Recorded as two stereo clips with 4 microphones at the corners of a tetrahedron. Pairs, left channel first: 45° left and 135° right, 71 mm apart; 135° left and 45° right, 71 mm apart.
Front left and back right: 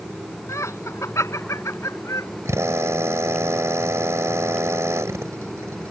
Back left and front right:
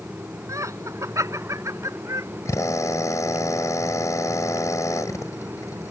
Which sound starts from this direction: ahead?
Laughter, at 0.5 s.